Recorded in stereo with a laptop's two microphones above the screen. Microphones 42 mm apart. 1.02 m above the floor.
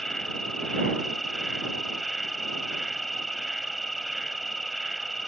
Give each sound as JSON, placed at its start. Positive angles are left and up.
{"t": 0.0, "sound": "an insect", "side_deg": 10}